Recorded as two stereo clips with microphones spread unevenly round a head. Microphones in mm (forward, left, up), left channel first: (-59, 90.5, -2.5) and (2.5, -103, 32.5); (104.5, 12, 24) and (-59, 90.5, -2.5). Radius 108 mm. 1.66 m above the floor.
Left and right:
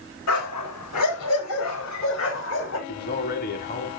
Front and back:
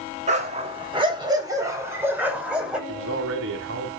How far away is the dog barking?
About 3 m.